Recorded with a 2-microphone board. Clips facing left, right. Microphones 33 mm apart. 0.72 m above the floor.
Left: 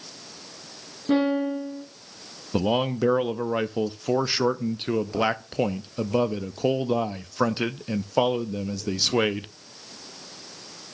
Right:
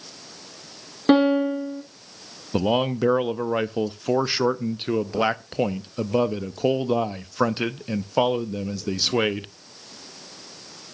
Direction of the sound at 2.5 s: 10° right (ahead or behind).